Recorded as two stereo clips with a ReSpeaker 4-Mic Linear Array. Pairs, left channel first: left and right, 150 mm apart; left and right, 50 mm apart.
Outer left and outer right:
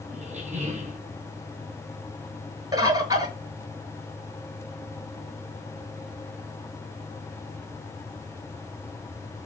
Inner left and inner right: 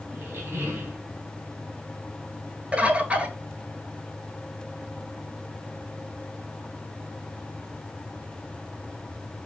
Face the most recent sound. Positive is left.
turn(degrees=-25)  # may be behind; listen again after turning